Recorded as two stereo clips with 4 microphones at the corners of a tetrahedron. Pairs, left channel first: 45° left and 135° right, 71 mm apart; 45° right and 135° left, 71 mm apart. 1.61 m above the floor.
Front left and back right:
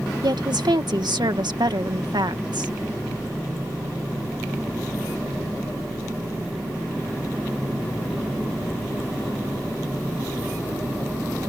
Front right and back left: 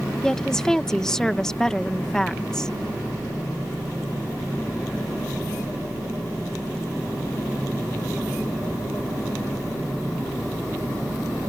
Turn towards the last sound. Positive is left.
turn(degrees=-125)